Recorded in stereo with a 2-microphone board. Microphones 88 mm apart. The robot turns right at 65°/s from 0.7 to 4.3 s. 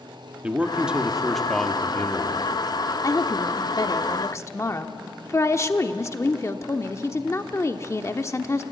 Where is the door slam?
No door slam in this recording.